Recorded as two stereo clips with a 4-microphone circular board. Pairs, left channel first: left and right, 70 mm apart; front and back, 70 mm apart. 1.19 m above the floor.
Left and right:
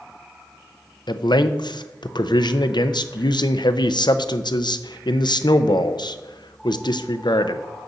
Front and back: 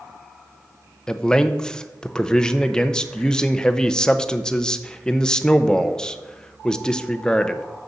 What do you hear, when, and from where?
1.1 s a man speaking: 80° left, 0.6 m